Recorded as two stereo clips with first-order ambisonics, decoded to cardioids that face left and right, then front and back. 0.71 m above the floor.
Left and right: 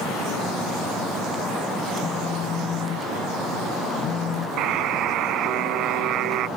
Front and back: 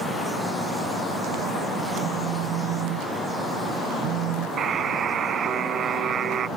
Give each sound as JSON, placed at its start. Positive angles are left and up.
{"t": 2.0, "sound": "a phone buzzing", "azimuth_deg": 150}
{"t": 4.6, "sound": "a buzzer", "azimuth_deg": -125}